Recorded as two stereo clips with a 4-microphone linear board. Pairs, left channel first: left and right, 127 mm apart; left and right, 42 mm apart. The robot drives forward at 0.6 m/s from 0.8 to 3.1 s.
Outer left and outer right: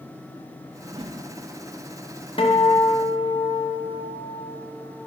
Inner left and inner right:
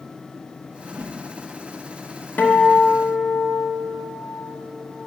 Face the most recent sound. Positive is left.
turn(degrees=30)  # may be behind; listen again after turning